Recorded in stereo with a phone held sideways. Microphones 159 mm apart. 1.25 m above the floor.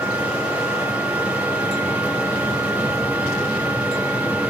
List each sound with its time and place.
0.0 s a machine running: 10° right (ahead or behind), 1.6 m